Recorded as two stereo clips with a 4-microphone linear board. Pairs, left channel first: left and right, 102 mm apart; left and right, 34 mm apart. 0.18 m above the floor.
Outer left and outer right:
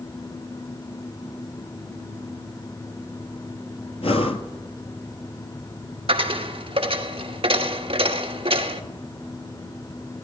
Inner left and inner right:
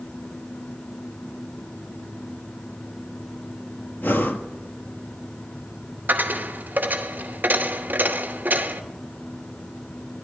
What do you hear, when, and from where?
4.0 s breathing: 80° left, 0.8 m
6.1 s a dropped coin: 70° right (ahead or behind), 0.9 m